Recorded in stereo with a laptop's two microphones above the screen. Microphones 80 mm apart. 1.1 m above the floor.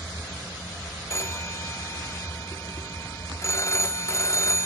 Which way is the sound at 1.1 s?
40° left (ahead or behind).